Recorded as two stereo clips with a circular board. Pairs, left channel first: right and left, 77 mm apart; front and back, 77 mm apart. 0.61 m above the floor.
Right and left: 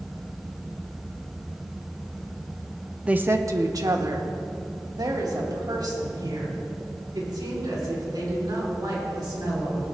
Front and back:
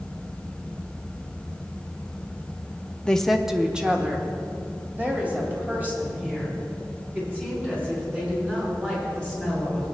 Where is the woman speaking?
50° left, 0.6 m; by 9.9 s 115° left, 7.5 m.